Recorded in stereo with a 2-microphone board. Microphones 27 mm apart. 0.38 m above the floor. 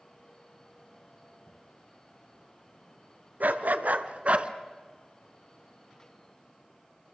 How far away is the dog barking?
About 1.4 m.